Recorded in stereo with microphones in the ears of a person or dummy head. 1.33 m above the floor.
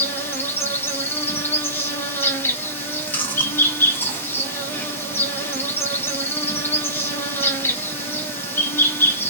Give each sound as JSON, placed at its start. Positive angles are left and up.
{"t": 0.0, "sound": "an insect", "side_deg": 10, "distance_m": 0.7}
{"t": 2.8, "sound": "chewing", "side_deg": 10, "distance_m": 0.8}